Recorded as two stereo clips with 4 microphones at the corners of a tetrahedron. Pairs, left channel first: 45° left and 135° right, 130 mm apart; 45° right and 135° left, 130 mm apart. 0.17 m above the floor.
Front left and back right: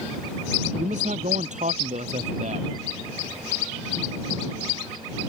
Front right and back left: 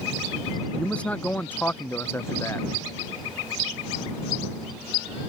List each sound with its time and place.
0.8 s a man speaking: 125° right; by 2.7 s 110° right